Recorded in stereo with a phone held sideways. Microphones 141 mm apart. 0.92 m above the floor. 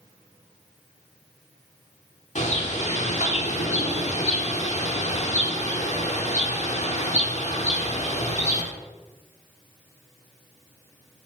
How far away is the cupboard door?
I don't hear a cupboard door.